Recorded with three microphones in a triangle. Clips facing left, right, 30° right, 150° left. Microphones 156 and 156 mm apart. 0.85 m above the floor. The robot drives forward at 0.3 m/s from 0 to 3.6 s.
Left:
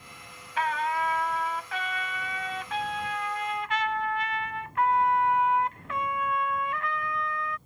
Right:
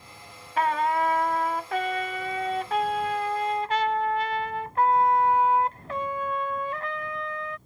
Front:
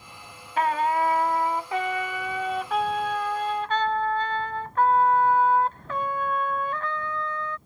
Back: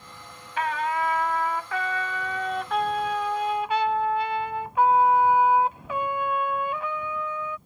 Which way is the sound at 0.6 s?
60° right.